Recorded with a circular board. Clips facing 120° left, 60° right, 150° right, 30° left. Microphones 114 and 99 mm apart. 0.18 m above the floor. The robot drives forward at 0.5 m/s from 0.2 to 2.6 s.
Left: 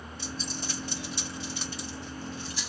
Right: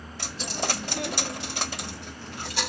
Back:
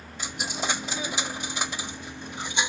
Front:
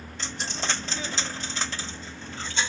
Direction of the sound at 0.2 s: 70° right.